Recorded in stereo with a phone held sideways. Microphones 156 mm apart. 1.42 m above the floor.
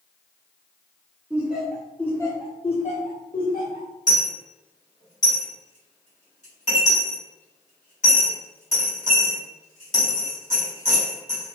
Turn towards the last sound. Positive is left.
turn(degrees=50)  # may be behind; listen again after turning